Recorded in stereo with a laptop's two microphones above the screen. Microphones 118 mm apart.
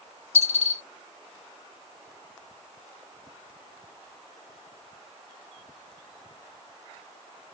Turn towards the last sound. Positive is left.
turn(degrees=60)  # may be behind; listen again after turning